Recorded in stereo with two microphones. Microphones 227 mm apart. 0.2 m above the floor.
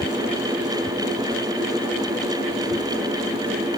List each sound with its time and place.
Only background noise.